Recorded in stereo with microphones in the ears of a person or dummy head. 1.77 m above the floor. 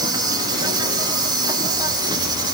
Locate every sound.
0.0 s an insect: 25° right (ahead or behind), 1.3 m